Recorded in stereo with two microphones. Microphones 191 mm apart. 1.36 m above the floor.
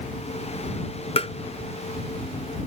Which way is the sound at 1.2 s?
30° left (ahead or behind).